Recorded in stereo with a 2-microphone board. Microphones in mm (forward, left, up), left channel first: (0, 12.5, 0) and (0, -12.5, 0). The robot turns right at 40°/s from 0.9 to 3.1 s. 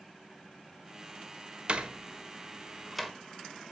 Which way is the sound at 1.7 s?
45° right (ahead or behind).